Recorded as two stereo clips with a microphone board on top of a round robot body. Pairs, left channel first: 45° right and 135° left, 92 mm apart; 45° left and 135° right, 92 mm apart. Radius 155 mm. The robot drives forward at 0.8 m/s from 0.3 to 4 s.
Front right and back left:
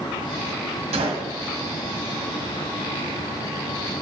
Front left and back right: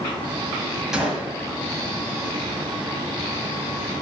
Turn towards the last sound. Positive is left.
turn(degrees=165)